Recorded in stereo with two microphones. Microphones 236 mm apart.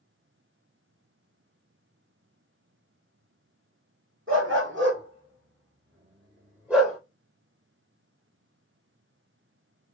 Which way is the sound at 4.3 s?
55° right (ahead or behind).